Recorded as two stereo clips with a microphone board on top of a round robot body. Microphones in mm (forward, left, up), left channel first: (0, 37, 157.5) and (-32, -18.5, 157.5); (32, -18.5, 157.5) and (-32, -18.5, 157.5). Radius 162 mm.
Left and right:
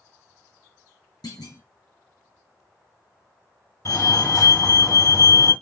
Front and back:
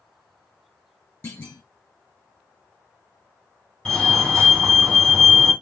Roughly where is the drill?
I don't hear a drill.